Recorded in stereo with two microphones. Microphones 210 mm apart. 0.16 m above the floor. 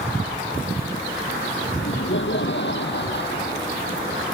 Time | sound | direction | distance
1.8 | laughter | 65° left (ahead or behind) | ?